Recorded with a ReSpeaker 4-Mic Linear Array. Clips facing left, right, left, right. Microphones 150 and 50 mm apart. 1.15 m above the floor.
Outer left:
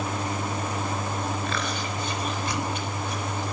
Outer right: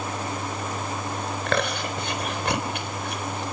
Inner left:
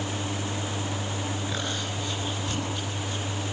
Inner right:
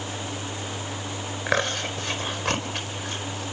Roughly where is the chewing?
Right.